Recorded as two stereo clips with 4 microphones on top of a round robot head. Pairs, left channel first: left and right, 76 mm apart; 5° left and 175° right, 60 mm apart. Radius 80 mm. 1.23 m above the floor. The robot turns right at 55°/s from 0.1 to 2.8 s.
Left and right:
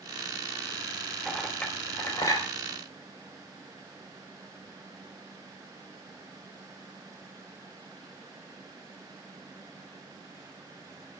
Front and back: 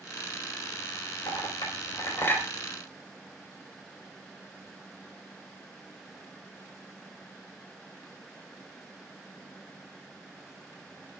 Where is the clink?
5° right, 4 m; by 2.5 s 65° left, 4 m.